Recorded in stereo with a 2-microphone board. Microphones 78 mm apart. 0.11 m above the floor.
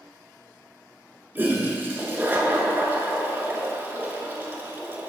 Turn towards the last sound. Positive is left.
turn(degrees=-25)  # may be behind; listen again after turning